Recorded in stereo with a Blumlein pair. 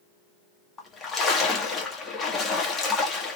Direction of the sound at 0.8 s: 20° left.